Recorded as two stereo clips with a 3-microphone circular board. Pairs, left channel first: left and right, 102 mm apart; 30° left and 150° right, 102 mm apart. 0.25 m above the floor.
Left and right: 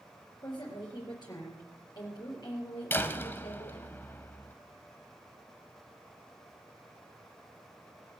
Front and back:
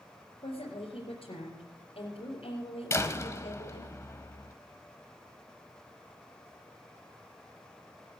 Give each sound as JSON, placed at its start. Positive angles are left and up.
{"t": 0.4, "sound": "a woman speaking", "azimuth_deg": 45, "distance_m": 4.0}
{"t": 2.9, "sound": "a door slam", "azimuth_deg": 45, "distance_m": 1.0}